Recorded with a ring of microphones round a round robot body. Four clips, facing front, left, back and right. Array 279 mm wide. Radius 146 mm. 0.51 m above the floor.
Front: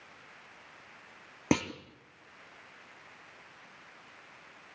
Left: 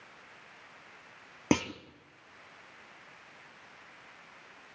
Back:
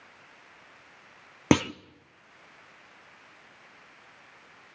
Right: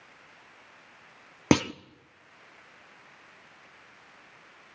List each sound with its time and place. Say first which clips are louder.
1.5 s a clunk: right 5 dB, back 6 dB; 140° right, 0.5 m